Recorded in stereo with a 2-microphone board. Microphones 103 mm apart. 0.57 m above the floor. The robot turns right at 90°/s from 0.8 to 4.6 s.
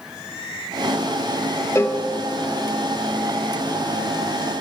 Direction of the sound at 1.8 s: 25° left (ahead or behind).